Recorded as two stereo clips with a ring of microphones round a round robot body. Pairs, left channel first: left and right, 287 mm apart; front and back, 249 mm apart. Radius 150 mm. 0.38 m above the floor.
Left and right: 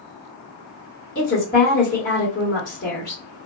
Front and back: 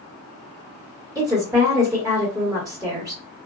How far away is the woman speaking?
About 1.6 m.